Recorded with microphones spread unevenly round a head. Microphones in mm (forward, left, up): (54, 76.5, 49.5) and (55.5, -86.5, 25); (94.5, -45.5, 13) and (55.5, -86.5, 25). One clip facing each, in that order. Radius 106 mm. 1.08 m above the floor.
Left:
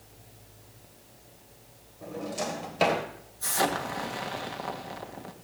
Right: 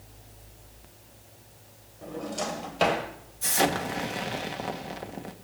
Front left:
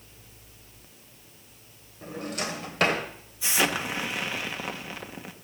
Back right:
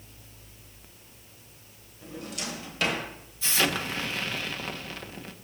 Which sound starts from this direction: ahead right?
An explosion, at 3.4 s.